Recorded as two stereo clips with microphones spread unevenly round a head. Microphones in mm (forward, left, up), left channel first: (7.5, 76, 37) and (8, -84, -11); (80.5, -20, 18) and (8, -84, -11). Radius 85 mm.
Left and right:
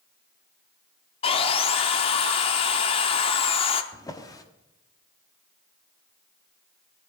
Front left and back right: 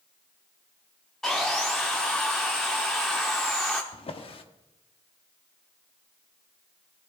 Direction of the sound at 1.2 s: 115° left.